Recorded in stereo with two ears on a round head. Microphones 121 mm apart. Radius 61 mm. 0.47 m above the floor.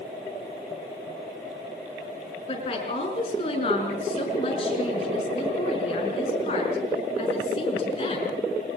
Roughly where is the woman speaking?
Left.